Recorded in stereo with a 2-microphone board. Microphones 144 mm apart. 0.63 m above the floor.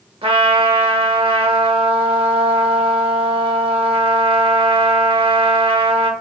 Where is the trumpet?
40° right (ahead or behind), 0.7 m.